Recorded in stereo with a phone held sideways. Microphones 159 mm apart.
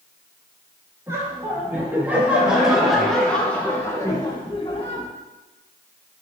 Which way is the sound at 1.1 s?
20° right (ahead or behind).